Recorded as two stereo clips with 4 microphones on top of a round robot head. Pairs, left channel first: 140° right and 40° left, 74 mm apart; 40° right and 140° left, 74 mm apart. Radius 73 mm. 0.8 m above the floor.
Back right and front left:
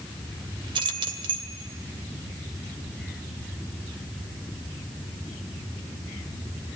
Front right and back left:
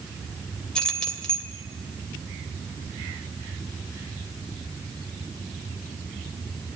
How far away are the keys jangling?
About 2.5 m.